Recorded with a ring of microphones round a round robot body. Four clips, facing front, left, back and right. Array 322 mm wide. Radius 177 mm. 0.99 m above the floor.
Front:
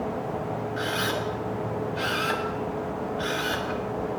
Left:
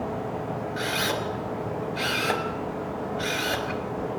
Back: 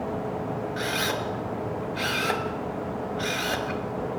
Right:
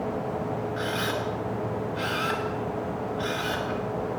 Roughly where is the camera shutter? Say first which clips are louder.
Left 1 dB, front 1 dB; behind left.